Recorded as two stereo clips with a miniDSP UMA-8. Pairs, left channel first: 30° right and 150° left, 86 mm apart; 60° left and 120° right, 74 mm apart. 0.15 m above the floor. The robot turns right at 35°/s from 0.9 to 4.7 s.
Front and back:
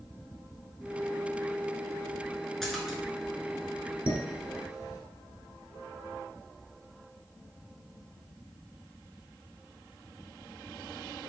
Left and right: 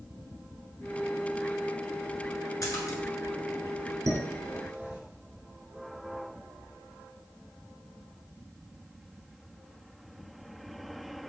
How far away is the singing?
I don't hear singing.